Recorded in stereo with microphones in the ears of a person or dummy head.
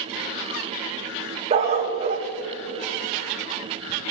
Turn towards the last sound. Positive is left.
turn(degrees=-35)  # may be behind; listen again after turning